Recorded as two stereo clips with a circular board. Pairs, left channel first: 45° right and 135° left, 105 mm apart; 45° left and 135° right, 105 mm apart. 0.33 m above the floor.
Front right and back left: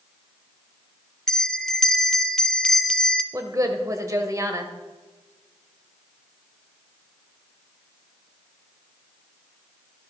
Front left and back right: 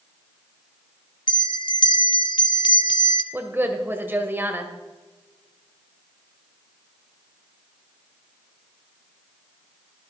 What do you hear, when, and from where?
1.3 s a bell: 40° left, 0.5 m
3.3 s a woman speaking: 170° left, 1.3 m